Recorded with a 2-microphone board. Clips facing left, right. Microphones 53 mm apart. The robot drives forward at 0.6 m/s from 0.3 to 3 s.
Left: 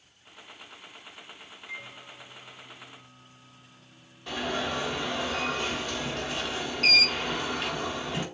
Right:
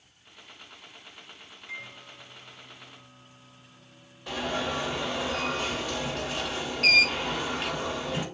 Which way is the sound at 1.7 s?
5° left (ahead or behind).